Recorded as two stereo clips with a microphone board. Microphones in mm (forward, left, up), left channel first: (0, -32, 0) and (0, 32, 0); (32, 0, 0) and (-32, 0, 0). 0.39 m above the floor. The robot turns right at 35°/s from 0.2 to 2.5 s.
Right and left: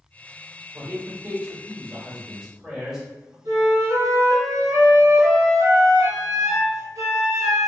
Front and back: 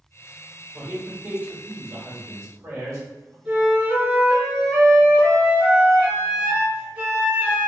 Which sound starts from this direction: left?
A man speaking, at 0.7 s.